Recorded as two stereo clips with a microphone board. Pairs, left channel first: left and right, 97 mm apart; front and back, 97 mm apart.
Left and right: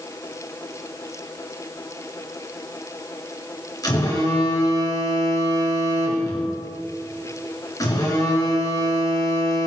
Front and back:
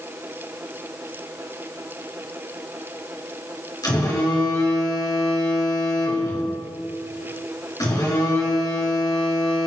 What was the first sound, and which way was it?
A phone buzzing, 45° left.